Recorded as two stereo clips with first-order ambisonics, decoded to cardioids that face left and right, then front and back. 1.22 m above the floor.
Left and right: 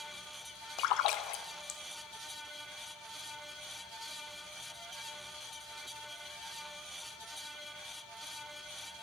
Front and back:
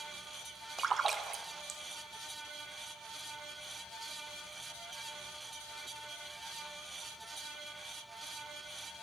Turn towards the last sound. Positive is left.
turn(degrees=110)